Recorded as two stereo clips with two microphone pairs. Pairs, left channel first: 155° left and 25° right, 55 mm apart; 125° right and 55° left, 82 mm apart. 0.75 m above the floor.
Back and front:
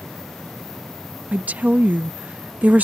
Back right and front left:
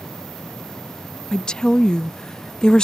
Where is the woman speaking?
50° right.